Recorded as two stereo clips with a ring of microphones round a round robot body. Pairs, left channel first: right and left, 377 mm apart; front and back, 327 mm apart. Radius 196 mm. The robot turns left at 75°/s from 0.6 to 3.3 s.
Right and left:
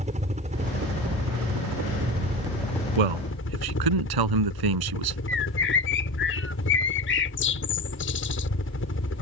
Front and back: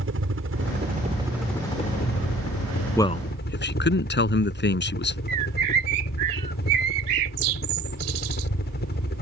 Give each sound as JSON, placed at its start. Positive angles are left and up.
{"t": 0.0, "sound": "a helicopter", "azimuth_deg": 155}
{"t": 3.0, "sound": "a man speaking", "azimuth_deg": 85}
{"t": 5.3, "sound": "a bird", "azimuth_deg": -150}